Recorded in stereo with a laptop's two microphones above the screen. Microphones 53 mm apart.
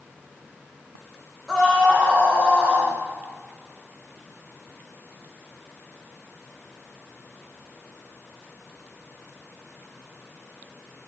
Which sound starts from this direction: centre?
A scream, at 1.5 s.